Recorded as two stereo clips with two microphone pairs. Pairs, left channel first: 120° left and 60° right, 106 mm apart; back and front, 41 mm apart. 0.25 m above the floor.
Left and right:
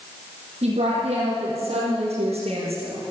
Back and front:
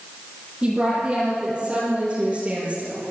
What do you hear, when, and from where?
0.6 s a woman speaking: 80° right, 7 m; by 3.0 s 60° right, 7 m